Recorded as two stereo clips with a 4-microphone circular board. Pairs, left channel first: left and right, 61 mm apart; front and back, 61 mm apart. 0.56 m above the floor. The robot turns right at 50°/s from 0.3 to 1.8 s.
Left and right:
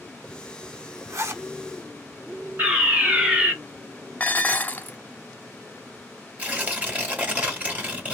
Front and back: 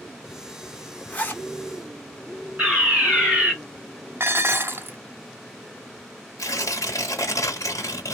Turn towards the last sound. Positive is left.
turn(degrees=-25)